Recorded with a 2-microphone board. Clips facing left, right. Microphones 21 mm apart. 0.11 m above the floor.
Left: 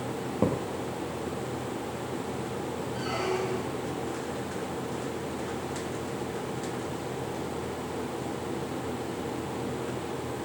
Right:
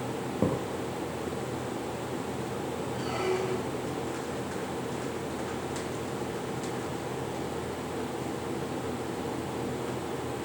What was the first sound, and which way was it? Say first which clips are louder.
A thud: left 1 dB; 25° left (ahead or behind).